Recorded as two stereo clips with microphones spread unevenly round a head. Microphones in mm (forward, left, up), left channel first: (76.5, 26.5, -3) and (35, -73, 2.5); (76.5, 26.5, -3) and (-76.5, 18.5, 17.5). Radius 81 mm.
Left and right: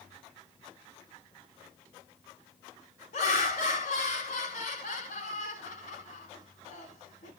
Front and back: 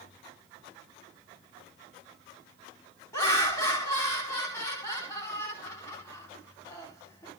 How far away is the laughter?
About 3 m.